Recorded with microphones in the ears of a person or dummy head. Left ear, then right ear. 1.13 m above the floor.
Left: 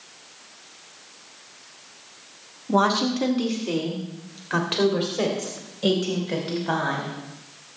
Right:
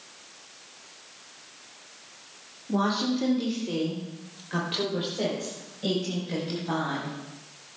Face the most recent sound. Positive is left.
turn(degrees=45)  # may be behind; listen again after turning